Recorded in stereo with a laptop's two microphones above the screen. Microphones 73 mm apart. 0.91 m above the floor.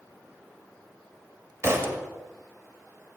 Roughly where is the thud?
Right.